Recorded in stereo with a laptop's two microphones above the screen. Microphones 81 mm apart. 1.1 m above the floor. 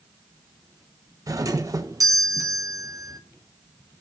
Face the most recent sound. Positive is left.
turn(degrees=-45)  # may be behind; listen again after turning